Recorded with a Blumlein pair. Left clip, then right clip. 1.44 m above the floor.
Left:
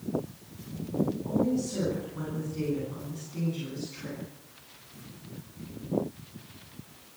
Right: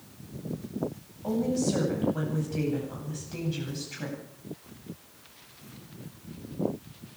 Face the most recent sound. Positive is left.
turn(degrees=-40)